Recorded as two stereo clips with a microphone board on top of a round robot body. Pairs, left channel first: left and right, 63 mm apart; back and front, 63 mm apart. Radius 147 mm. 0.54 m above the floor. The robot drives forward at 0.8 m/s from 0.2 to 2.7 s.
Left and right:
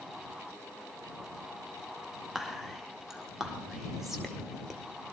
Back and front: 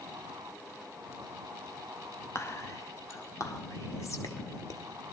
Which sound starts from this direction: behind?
Whispering, at 2.4 s.